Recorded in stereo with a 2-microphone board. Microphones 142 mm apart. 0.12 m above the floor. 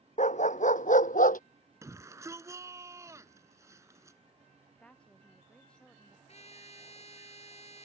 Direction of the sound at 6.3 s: 50° left (ahead or behind).